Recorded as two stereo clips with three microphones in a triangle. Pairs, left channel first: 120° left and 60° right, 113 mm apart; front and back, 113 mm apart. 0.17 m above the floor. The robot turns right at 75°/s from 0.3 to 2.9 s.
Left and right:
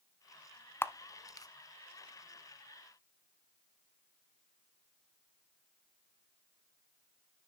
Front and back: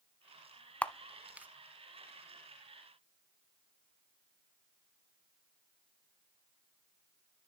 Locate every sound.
0.8 s a camera shutter: 70° left, 0.5 m; by 1.5 s 120° left, 0.5 m